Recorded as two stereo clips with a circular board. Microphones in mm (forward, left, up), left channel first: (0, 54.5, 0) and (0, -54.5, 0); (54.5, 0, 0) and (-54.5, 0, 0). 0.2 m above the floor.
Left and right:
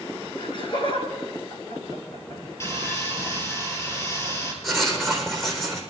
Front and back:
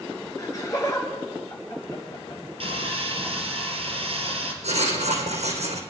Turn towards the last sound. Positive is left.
turn(degrees=180)